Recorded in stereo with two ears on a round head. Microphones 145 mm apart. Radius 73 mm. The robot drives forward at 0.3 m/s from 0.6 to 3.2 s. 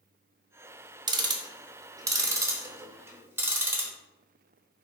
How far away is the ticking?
About 0.5 m.